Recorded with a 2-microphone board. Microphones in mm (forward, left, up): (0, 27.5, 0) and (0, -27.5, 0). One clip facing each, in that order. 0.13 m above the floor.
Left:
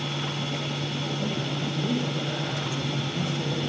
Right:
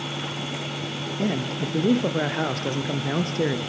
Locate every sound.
1.2 s a man speaking: 60° right (ahead or behind), 3 m